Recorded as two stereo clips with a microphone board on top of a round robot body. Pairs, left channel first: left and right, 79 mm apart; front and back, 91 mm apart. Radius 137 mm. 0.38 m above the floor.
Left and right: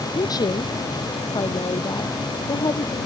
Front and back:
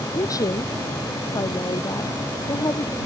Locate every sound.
0.1 s a woman speaking: 55° left